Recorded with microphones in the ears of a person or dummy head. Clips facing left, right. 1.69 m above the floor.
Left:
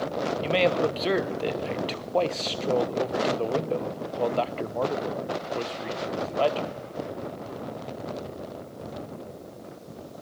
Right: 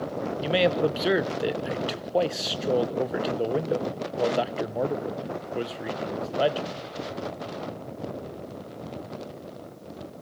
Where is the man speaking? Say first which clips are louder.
Right 1 dB; 15° right (ahead or behind), 1.2 m.